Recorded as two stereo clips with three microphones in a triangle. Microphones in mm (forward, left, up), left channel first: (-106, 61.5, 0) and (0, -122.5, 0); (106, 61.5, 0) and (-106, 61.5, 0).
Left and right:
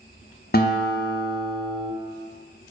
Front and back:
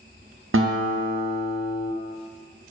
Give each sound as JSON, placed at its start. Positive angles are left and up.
{"t": 0.5, "sound": "a guitar", "azimuth_deg": 165, "distance_m": 0.5}